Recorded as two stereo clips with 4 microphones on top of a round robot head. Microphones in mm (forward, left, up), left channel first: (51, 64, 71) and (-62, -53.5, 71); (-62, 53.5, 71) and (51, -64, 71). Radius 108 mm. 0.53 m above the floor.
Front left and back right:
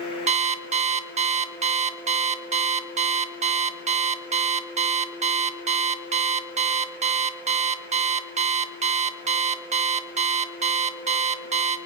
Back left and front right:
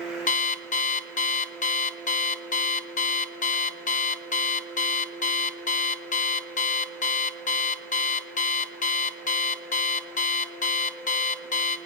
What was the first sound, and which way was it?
An alarm clock, 175° left.